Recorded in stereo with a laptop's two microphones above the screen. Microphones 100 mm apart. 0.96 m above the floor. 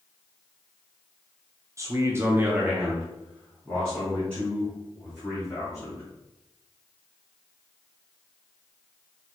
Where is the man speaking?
30° right (ahead or behind), 0.7 m; by 6.0 s 20° left (ahead or behind), 2.5 m.